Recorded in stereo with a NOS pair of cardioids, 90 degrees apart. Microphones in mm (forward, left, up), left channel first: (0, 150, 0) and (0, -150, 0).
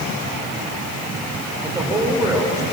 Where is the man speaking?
10° right, 7 m.